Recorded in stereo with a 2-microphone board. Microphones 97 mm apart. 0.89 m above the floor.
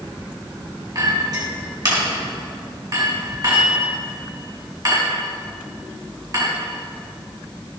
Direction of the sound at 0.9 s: 40° right (ahead or behind).